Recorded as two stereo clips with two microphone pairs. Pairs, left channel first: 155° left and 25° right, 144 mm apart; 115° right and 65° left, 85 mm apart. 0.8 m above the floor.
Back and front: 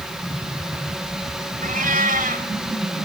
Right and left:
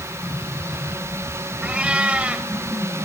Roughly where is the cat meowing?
Ahead.